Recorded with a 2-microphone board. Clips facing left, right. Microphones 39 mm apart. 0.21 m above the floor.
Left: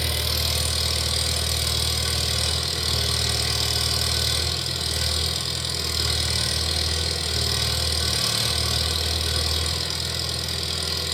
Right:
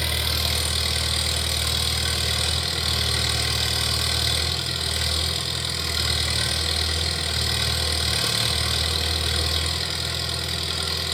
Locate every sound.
0.0 s an engine running: 30° right (ahead or behind), 0.9 m